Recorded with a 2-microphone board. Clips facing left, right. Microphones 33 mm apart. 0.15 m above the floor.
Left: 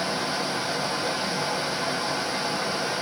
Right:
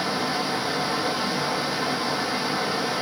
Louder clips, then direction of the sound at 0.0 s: Right 2 dB; 15° right (ahead or behind).